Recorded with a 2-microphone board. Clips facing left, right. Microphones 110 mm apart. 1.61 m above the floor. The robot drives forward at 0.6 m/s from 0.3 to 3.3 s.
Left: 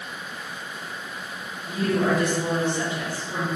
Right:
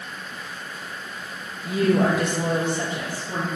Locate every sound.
1.6 s a woman speaking: 70° right (ahead or behind), 0.7 m; by 3.5 s 35° right (ahead or behind), 1.2 m